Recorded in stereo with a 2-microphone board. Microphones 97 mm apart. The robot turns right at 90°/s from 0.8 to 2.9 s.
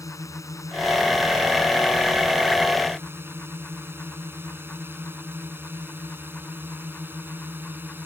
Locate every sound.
0.0 s a drone: 35° left (ahead or behind); by 8.1 s 20° right (ahead or behind)